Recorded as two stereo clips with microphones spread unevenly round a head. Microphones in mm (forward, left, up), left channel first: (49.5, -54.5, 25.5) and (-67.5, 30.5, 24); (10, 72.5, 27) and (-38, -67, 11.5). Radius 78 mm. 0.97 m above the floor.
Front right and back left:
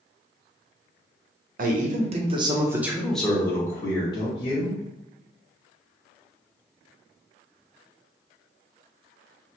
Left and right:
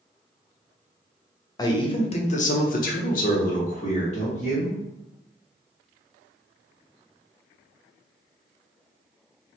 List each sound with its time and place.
1.6 s a man speaking: 135° left, 0.8 m; by 4.8 s 20° left, 1.5 m